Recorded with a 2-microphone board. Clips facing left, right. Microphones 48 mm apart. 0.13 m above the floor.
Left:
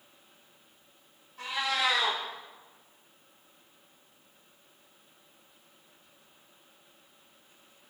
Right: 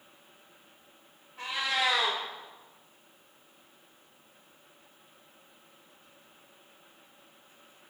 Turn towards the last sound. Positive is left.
turn(degrees=-30)  # may be behind; listen again after turning